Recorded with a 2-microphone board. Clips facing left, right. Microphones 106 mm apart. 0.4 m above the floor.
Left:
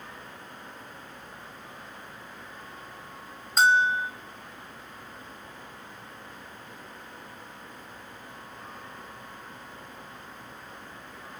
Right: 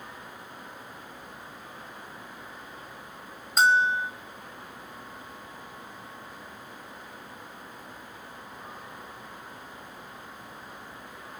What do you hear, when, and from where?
3.6 s a bell: centre (ahead or behind), 2.5 m